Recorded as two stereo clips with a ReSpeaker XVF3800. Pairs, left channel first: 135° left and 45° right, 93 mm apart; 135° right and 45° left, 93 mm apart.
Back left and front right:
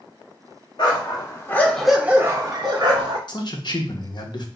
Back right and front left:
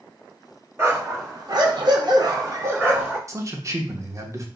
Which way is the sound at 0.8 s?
100° left.